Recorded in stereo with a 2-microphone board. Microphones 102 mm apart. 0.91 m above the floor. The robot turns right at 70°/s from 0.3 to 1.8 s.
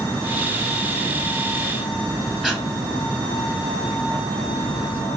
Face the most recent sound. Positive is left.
turn(degrees=-5)  # may be behind; listen again after turning